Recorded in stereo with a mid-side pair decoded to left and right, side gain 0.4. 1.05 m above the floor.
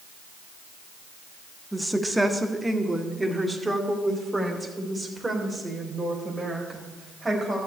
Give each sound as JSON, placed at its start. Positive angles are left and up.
{"t": 1.7, "sound": "a woman speaking", "azimuth_deg": -5, "distance_m": 1.3}